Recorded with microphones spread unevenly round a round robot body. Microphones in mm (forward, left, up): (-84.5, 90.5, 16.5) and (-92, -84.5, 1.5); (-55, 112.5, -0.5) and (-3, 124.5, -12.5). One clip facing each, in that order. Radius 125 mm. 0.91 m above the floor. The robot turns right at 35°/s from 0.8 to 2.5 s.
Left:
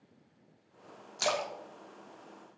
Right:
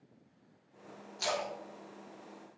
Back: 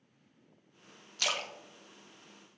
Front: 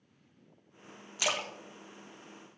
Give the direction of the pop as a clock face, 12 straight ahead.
I don't hear a pop.